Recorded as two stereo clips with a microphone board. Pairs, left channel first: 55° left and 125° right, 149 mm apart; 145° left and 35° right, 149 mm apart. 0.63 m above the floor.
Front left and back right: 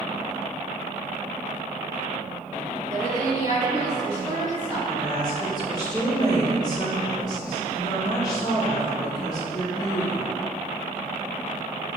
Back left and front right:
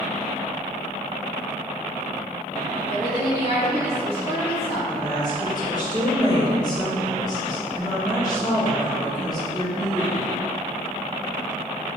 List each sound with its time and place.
2.9 s a woman speaking: straight behind, 1.4 m
4.9 s a woman speaking: 100° left, 1.0 m